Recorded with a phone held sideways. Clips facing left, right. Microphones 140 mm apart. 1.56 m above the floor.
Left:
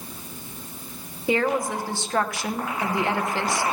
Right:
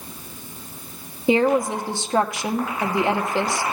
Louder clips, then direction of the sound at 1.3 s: Right 5 dB; 20° right (ahead or behind).